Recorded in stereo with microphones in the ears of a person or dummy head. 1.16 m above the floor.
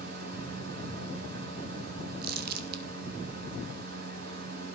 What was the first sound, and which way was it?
A fan, 60° right (ahead or behind).